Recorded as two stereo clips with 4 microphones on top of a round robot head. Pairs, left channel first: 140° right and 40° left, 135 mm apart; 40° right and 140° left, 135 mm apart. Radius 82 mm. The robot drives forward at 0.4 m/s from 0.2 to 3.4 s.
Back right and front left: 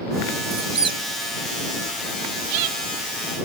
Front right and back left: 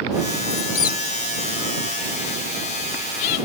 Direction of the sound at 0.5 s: 15° right.